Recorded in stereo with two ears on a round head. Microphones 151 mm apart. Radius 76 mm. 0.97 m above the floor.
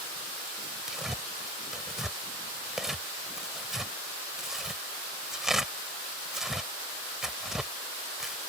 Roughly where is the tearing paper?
Centre.